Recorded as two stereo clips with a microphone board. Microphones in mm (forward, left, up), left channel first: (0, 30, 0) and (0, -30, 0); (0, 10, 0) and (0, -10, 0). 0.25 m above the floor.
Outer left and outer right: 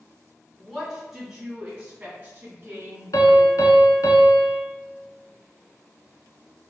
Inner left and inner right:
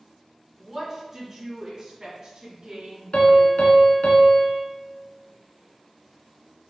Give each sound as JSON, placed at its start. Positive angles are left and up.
{"t": 0.6, "sound": "a woman speaking", "side_deg": 5, "distance_m": 2.0}
{"t": 3.1, "sound": "a piano", "side_deg": 70, "distance_m": 0.9}